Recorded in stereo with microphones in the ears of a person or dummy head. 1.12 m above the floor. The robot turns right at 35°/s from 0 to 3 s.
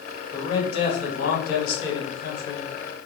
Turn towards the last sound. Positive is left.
turn(degrees=110)